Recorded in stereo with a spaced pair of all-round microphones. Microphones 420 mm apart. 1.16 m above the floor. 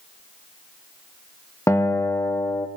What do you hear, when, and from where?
1.7 s a guitar: 5° left (ahead or behind), 0.7 m